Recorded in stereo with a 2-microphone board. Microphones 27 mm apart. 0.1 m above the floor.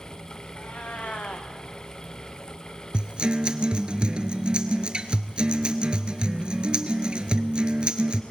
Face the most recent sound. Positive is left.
turn(degrees=-35)  # may be behind; listen again after turning